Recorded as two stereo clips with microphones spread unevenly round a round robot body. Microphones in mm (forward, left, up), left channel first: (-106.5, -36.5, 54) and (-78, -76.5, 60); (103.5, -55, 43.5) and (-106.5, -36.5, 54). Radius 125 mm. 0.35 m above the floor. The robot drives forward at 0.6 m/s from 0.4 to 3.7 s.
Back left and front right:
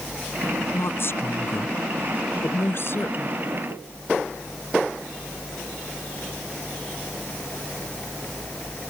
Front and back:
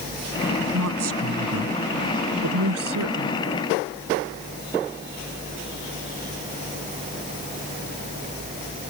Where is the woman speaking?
155° left; by 3.4 s 160° left.